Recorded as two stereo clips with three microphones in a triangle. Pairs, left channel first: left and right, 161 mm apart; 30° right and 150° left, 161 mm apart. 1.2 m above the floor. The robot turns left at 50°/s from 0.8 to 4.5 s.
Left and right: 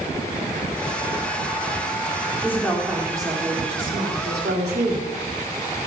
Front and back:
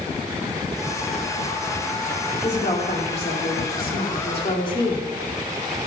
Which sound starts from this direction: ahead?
A woman speaking, at 2.4 s.